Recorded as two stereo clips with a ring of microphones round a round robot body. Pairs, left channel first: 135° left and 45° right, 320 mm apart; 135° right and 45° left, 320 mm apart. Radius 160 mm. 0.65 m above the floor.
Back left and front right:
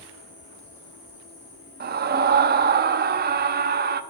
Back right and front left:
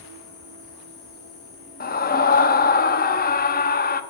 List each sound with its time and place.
0.0 s an insect: 140° right, 5.5 m
1.8 s a scream: 90° right, 0.8 m